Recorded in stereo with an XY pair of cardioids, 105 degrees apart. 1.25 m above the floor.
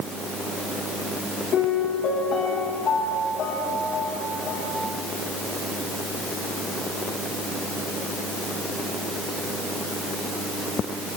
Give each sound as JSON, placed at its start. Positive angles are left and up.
{"t": 1.5, "sound": "a piano", "azimuth_deg": 65, "distance_m": 8.5}